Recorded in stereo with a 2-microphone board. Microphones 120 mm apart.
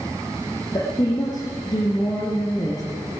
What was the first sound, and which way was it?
A woman speaking, 30° left (ahead or behind).